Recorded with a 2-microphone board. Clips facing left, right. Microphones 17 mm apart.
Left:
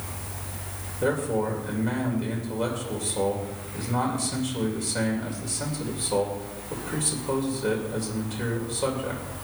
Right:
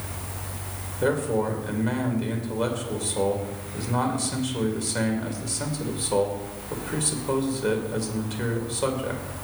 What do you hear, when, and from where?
1.0 s a man speaking: 15° right (ahead or behind), 2.5 m